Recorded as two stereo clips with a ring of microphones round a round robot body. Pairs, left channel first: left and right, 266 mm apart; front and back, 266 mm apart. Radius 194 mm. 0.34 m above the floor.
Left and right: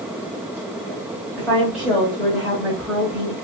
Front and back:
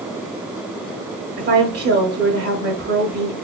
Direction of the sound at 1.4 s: 175° right.